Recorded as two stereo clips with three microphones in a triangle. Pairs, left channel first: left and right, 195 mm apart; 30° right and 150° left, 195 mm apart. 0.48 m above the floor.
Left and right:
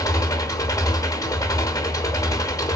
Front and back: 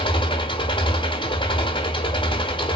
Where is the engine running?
25° left, 0.9 m.